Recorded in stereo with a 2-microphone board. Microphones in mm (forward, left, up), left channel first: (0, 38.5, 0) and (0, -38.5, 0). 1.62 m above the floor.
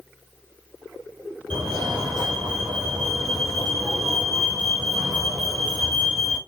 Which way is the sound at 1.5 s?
75° right (ahead or behind).